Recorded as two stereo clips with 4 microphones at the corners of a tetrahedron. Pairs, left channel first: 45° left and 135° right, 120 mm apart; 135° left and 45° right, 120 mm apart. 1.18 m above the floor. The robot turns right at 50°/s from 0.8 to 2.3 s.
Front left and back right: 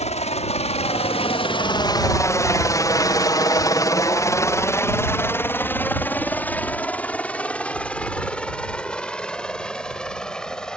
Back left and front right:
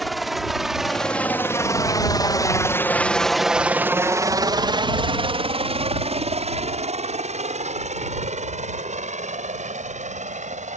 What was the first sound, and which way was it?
A helicopter, 45° left.